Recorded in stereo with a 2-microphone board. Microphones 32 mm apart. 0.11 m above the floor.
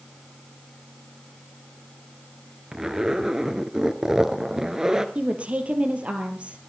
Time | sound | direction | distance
2.7 | a zipper | 20° right (ahead or behind) | 1.0 m
5.2 | a woman speaking | 40° right (ahead or behind) | 2.5 m